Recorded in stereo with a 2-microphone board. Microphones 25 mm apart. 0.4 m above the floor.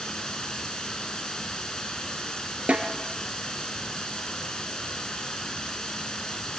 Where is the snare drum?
70° right (ahead or behind), 3.5 m.